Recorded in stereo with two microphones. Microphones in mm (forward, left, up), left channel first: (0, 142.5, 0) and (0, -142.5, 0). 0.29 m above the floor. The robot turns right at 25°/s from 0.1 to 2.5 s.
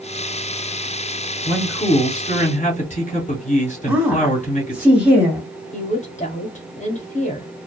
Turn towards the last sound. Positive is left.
turn(degrees=25)  # may be behind; listen again after turning